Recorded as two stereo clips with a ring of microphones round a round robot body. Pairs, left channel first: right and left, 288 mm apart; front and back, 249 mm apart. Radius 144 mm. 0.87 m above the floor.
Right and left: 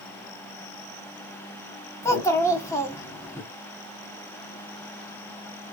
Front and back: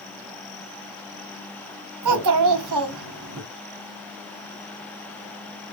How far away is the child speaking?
About 1.3 m.